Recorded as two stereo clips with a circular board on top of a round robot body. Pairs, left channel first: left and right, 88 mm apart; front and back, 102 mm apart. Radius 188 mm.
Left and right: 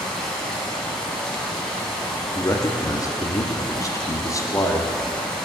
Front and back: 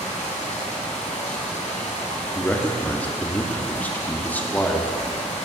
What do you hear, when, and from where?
0.0 s running water: 5° left, 1.7 m
2.4 s a man speaking: 65° left, 1.1 m